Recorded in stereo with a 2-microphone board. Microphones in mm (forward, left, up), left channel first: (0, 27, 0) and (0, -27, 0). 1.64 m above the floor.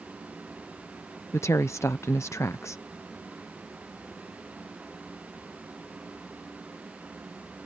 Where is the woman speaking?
60° left (ahead or behind).